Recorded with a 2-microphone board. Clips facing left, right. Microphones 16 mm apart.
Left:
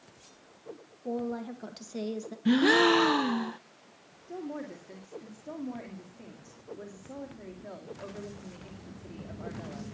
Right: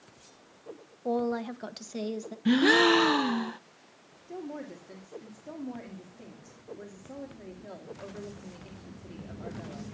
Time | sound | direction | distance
1.1 | a woman speaking | 50° right (ahead or behind) | 1.3 m
2.5 | a gasp | 10° right (ahead or behind) | 0.5 m
4.3 | a woman speaking | 10° left (ahead or behind) | 2.5 m